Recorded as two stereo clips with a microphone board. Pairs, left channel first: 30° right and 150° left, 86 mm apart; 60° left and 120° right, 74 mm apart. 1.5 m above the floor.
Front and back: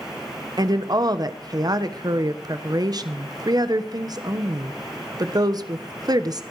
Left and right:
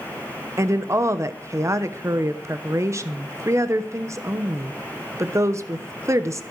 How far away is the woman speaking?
About 1.0 m.